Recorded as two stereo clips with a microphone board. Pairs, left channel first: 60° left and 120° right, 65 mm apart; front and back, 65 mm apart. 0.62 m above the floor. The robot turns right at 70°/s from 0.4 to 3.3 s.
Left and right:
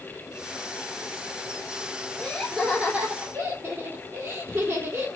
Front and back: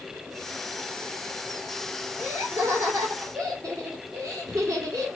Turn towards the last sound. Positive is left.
turn(degrees=-155)